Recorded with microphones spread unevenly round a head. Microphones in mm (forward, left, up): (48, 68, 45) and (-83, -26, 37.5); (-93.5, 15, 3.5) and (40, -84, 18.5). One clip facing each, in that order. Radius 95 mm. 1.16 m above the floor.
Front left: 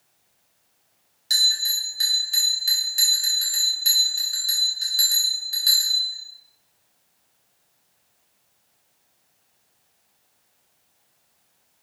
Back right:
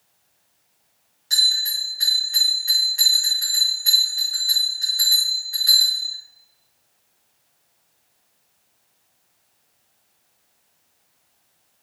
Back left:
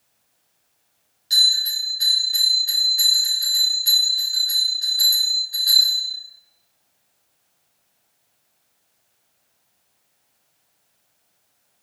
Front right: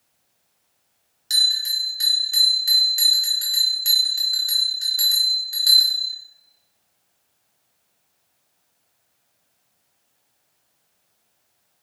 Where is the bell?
15° right, 0.9 m.